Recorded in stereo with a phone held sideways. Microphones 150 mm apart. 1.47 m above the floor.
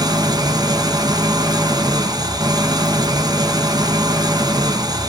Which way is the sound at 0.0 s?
25° right (ahead or behind).